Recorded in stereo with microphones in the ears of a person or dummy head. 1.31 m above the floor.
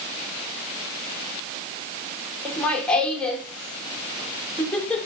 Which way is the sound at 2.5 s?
10° left (ahead or behind).